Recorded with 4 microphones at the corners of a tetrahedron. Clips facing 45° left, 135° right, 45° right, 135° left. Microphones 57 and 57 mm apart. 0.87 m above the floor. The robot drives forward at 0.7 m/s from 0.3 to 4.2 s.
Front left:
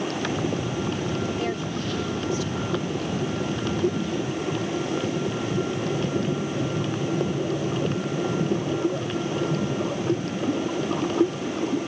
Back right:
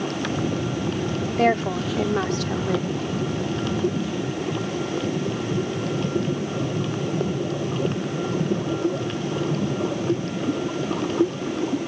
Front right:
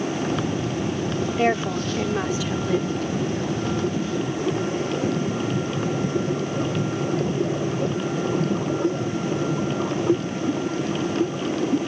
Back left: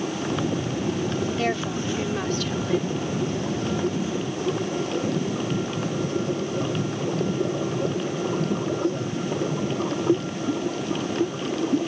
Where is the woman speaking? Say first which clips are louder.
Back right 7 dB, front right 4 dB; 110° right; by 2.9 s 130° right.